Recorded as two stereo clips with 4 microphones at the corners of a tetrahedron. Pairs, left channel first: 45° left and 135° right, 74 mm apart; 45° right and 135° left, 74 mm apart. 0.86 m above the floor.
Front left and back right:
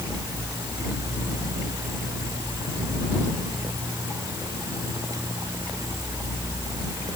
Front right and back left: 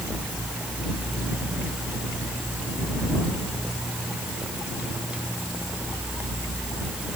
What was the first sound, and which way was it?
Only background noise.